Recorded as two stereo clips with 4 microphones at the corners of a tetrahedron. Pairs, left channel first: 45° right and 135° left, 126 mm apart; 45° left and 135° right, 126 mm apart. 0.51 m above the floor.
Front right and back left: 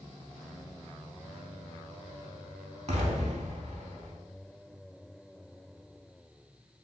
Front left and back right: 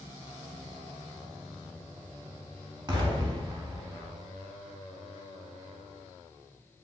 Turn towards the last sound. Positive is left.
turn(degrees=170)